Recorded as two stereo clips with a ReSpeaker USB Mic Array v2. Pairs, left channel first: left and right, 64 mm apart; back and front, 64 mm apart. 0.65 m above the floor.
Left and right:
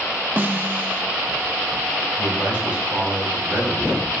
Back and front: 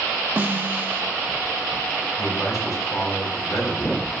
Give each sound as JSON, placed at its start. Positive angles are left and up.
{"t": 0.4, "sound": "a snare drum", "azimuth_deg": -45, "distance_m": 0.7}
{"t": 2.2, "sound": "a man speaking", "azimuth_deg": -160, "distance_m": 4.0}